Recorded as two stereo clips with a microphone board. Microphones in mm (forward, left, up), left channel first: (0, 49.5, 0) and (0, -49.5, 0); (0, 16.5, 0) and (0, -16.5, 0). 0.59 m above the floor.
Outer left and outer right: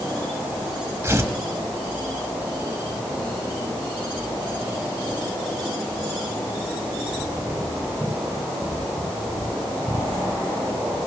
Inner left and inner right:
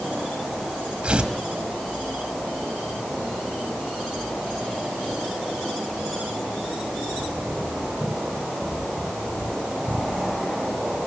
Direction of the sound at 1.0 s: 30° right (ahead or behind).